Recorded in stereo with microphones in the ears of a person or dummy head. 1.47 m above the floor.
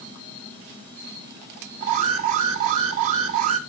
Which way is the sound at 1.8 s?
40° right (ahead or behind).